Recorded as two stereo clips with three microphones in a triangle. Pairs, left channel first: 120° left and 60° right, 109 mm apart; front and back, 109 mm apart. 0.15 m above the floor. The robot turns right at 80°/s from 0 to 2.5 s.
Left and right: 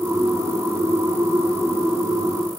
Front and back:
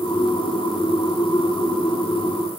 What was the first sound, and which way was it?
Only background noise.